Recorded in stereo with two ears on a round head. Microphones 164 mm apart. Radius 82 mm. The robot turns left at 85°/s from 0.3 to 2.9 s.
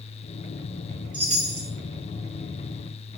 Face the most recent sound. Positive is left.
turn(degrees=180)